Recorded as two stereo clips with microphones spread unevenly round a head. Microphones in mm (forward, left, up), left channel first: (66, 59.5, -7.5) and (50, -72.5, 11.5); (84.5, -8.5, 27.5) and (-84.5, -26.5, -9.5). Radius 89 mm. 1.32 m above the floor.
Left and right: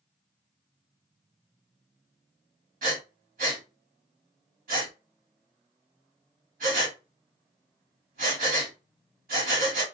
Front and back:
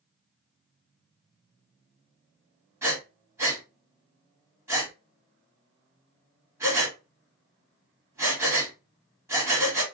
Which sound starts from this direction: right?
Breathing, at 2.8 s.